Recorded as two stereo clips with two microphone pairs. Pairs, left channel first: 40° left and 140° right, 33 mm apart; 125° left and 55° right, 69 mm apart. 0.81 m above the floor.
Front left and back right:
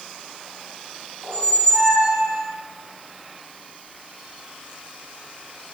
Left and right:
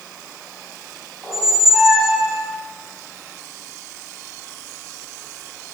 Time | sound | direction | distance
1.2 | a squeak | 140° right | 4.5 m